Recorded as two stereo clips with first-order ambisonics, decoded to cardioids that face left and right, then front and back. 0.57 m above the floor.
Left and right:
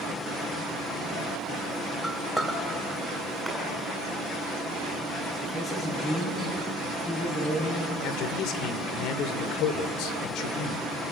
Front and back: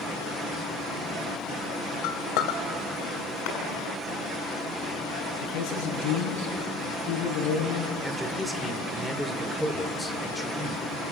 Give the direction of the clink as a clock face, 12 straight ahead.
12 o'clock.